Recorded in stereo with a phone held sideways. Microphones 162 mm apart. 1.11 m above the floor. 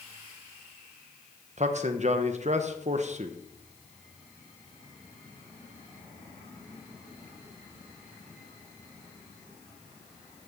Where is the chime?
I don't hear a chime.